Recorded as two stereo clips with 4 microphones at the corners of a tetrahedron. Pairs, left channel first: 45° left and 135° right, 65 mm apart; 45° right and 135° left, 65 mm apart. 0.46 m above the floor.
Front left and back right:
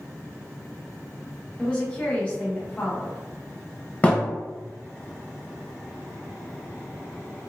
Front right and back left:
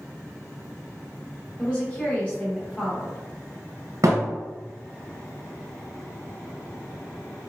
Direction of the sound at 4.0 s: 110° left.